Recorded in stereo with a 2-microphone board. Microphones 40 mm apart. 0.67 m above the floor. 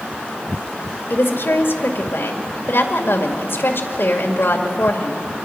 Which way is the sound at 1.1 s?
65° left (ahead or behind).